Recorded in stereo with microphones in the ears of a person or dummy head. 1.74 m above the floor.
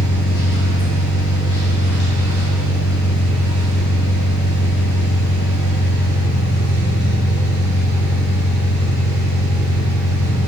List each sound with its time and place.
0.0 s an engine running: 60° left (ahead or behind), 1.7 m